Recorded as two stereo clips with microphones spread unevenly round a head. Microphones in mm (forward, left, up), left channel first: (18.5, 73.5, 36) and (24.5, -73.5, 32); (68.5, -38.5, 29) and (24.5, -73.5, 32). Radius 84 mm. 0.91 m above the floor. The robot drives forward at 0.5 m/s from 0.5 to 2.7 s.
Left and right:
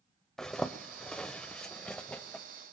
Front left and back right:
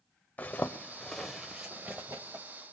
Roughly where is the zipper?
Ahead.